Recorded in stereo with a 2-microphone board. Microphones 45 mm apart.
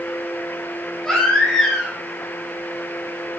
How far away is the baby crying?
About 4.5 m.